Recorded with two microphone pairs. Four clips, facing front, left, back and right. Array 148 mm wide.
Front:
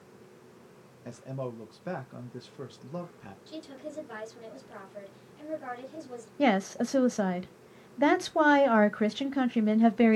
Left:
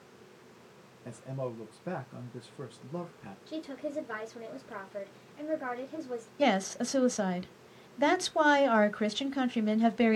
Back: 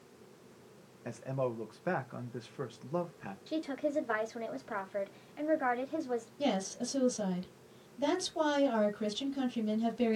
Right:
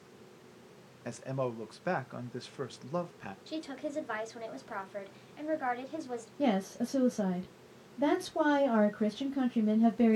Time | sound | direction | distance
1.1 | a man speaking | 110° right | 1.4 m
3.5 | a woman speaking | 145° right | 3 m
6.4 | a woman speaking | 40° left | 1.2 m